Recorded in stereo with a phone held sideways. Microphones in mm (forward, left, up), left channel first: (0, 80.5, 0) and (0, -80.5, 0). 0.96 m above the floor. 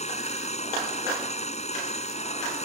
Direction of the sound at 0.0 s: 45° left (ahead or behind).